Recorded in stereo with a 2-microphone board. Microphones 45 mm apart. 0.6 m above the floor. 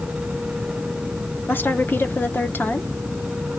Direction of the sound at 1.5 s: 50° left (ahead or behind).